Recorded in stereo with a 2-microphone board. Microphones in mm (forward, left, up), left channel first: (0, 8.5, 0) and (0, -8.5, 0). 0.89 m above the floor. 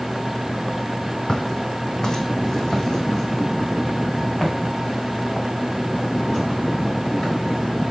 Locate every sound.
1.3 s footsteps: 45° left (ahead or behind), 1.6 m; by 7.9 s 20° left (ahead or behind), 5.5 m